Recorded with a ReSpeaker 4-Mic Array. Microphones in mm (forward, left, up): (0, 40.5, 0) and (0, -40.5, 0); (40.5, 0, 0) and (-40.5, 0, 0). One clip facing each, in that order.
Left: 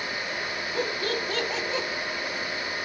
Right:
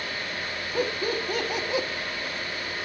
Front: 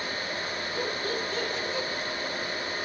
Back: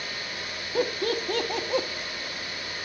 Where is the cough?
I don't hear a cough.